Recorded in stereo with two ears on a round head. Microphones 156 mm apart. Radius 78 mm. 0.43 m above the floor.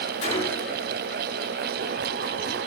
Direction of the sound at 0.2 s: 35° left (ahead or behind).